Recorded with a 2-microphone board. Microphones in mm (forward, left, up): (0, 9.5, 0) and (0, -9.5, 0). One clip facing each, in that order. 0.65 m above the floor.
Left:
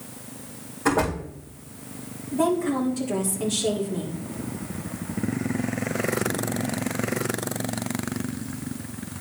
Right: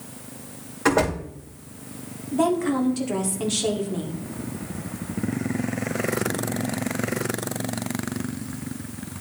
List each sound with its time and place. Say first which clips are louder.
0.8 s a door slam: right 2 dB; 70° right (ahead or behind), 2.5 m
2.3 s a woman speaking: right 1 dB; 30° right (ahead or behind), 1.8 m